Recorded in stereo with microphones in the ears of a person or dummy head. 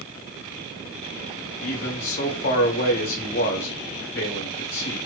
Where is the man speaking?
50° left (ahead or behind), 1.2 m.